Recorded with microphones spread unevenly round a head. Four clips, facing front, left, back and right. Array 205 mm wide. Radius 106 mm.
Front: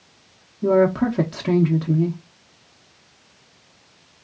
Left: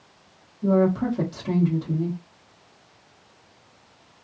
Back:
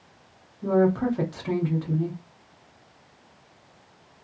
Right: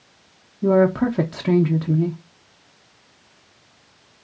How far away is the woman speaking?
About 0.6 m.